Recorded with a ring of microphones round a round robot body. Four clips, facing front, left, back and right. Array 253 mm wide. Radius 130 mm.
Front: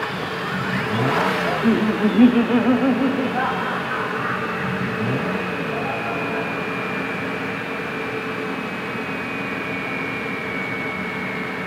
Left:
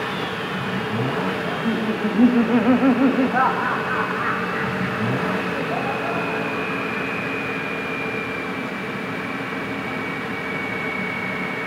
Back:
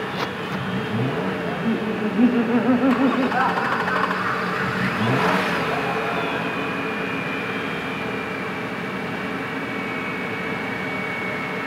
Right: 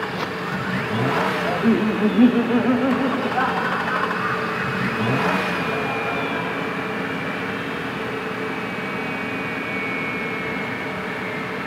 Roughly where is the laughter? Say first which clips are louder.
Right 4 dB, front 5 dB; ahead right.